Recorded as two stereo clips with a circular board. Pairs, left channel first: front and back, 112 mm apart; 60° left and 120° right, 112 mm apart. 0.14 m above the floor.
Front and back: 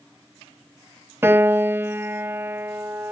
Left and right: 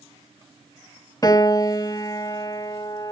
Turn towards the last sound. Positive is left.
turn(degrees=110)